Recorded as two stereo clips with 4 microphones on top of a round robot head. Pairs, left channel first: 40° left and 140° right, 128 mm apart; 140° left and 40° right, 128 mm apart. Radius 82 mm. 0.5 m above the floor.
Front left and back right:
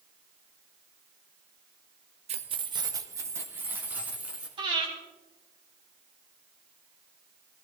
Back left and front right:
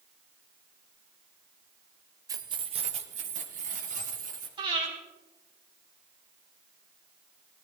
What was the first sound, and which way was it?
Keys jangling, 105° right.